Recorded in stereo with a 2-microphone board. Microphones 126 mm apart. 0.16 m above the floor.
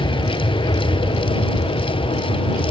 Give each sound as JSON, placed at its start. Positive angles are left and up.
{"t": 0.0, "sound": "an aircraft", "side_deg": 35}